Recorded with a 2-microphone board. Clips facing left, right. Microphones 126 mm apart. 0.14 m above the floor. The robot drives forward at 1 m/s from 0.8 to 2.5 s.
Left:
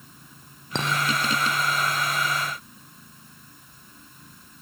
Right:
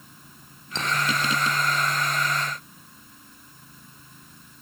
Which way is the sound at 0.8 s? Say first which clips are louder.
Left 3 dB; 60° left (ahead or behind).